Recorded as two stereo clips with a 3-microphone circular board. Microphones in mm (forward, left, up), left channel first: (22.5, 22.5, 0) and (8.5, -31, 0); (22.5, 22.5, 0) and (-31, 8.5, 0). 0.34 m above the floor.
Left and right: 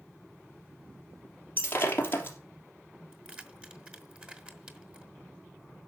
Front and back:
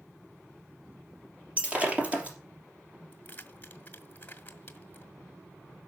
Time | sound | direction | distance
1.6 | breaking glass | 125° left | 3 m
3.1 | keys jangling | 40° right | 1.5 m